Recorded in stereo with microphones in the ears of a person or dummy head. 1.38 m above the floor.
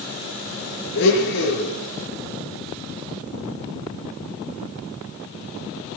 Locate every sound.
0.9 s a blender: 65° left (ahead or behind), 6 m